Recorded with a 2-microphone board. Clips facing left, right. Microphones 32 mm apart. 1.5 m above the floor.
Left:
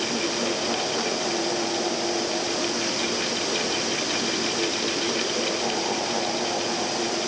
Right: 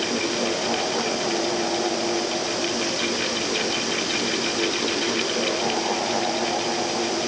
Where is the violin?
No violin in this recording.